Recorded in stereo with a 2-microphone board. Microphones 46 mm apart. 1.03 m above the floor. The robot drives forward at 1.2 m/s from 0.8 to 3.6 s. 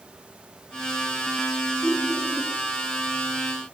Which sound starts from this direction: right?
Laughter, at 1.8 s.